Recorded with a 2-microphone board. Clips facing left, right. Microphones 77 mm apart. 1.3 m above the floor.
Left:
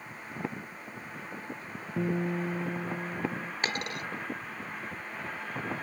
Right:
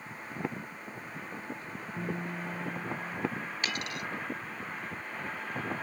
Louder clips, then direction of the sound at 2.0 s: Left 7 dB; 65° left (ahead or behind).